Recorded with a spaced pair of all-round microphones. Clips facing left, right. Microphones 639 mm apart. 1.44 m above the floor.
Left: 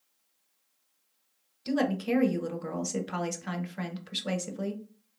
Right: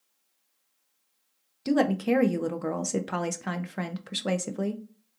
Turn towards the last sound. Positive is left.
turn(degrees=-70)  # may be behind; listen again after turning